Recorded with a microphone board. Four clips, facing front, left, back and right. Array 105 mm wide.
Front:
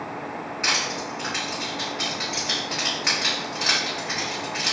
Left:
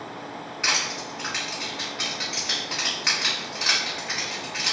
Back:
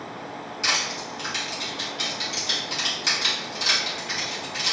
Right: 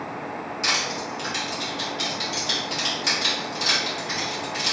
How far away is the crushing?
About 1.3 m.